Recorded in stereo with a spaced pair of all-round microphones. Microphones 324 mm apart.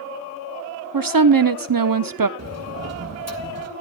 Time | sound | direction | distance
0.9 | a woman speaking | 70° right (ahead or behind) | 0.6 m
2.4 | a sliding door | 45° right (ahead or behind) | 1.6 m